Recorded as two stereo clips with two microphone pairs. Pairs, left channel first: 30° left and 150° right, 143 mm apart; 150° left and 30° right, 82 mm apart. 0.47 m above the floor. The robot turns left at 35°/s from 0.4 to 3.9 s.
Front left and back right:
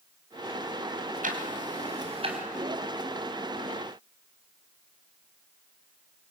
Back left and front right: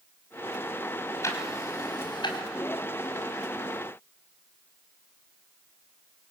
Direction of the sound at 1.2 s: 160° right.